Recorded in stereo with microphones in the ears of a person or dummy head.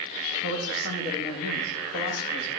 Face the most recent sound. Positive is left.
turn(degrees=80)